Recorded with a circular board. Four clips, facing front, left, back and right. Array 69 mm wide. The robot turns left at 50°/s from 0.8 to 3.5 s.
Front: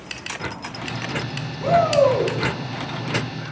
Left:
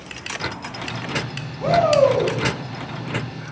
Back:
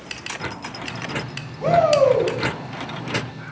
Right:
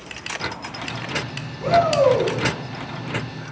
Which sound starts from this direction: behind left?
A shout, at 1.6 s.